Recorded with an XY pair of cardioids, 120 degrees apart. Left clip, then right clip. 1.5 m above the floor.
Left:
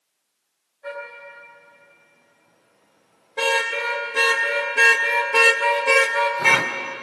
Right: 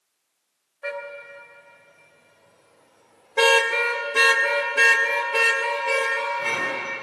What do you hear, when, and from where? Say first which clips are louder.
0.8 s a car horn: right 2 dB; 70° right, 5 m; by 6.7 s 65° left, 3 m